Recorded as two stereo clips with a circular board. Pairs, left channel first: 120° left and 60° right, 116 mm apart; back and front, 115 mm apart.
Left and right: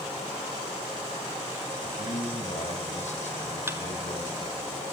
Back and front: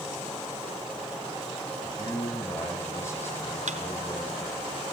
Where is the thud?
10° left, 2.5 m.